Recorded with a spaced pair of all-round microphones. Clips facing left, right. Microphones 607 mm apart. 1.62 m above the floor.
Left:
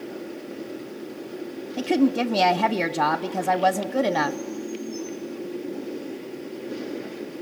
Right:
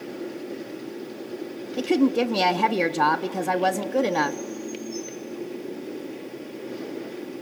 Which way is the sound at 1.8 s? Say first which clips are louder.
Even; 5° left (ahead or behind).